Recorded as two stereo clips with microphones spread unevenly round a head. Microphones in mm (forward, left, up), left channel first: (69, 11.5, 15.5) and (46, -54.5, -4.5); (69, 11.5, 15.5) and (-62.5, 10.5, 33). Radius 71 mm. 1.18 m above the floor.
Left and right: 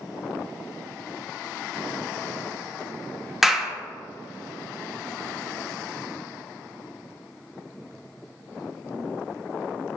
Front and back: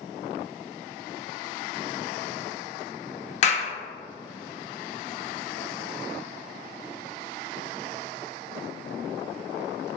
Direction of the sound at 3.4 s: 30° right.